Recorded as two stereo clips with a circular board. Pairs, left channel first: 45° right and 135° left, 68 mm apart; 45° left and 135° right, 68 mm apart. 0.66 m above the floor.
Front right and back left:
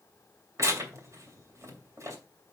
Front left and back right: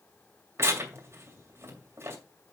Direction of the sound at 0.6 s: 175° left.